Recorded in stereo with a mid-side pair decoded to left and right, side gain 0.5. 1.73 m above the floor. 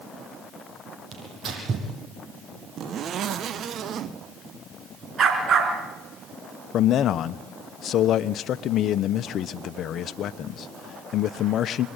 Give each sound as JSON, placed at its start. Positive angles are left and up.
{"t": 1.1, "sound": "tearing paper", "azimuth_deg": -45, "distance_m": 9.5}
{"t": 2.8, "sound": "a zipper", "azimuth_deg": -55, "distance_m": 1.3}
{"t": 5.2, "sound": "a dog barking", "azimuth_deg": -45, "distance_m": 5.0}
{"t": 6.7, "sound": "a man speaking", "azimuth_deg": 60, "distance_m": 1.2}